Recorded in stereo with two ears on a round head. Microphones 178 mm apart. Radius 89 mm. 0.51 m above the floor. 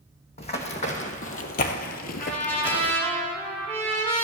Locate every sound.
0.4 s running footsteps: 30° left (ahead or behind), 1.5 m; by 2.9 s 20° left (ahead or behind), 0.7 m
2.2 s a trumpet: 10° left (ahead or behind), 2.5 m